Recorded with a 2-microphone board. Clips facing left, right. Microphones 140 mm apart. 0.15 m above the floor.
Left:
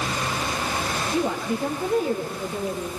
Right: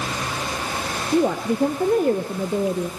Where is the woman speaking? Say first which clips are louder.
Right 7 dB; 55° right (ahead or behind), 2.5 m.